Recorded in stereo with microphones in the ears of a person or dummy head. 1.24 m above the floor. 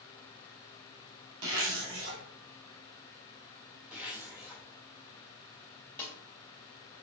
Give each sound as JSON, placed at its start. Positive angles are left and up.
{"t": 1.4, "sound": "a zipper", "side_deg": -80, "distance_m": 1.2}
{"t": 3.9, "sound": "a zipper", "side_deg": -10, "distance_m": 1.2}
{"t": 6.0, "sound": "a snare drum", "side_deg": 10, "distance_m": 0.9}